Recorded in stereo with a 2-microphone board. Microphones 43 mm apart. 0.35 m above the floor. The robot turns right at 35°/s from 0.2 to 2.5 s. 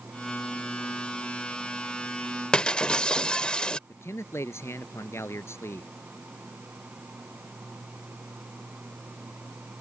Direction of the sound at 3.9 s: 75° left (ahead or behind).